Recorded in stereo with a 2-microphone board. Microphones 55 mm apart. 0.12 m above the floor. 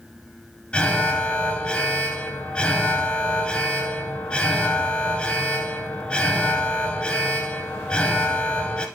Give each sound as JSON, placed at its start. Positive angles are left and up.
{"t": 0.7, "sound": "an alarm", "side_deg": 20, "distance_m": 1.5}